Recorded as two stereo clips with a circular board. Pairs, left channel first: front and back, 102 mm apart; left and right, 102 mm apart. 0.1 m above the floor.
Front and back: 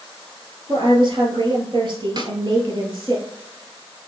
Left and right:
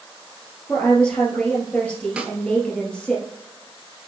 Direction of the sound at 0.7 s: 170° left.